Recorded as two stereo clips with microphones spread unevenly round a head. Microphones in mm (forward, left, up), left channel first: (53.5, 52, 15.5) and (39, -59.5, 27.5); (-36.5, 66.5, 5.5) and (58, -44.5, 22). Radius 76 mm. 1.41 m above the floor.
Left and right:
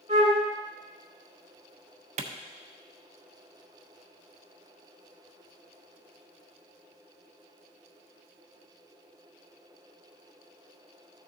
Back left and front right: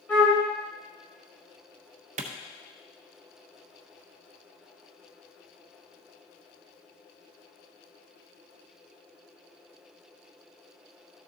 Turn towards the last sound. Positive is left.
turn(degrees=-90)